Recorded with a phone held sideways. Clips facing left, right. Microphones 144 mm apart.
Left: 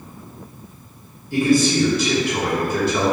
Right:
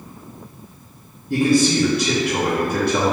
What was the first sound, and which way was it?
A man speaking, 65° right (ahead or behind).